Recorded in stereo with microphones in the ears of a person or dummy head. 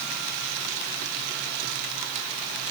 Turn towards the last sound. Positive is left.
No sound to turn to.